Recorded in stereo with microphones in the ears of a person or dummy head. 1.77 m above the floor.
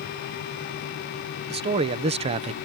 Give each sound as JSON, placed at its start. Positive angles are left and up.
{"t": 1.5, "sound": "a man speaking", "side_deg": -30}